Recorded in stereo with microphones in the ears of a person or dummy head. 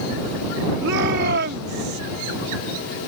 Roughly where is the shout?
Right.